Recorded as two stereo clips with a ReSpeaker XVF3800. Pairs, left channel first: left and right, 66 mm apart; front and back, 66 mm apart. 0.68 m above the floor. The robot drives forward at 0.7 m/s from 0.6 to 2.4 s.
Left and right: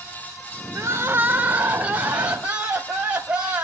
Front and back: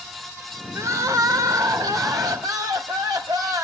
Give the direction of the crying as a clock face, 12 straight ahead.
4 o'clock.